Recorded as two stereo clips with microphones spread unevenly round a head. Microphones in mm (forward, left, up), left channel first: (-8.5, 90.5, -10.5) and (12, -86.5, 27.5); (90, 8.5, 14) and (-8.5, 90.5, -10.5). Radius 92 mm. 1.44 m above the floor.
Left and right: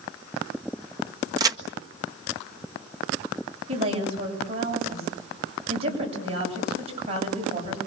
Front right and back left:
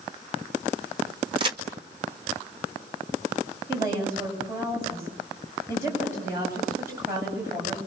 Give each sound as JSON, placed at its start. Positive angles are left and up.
{"t": 1.4, "sound": "a crack", "azimuth_deg": -150, "distance_m": 1.5}
{"t": 3.7, "sound": "a woman speaking", "azimuth_deg": -140, "distance_m": 8.5}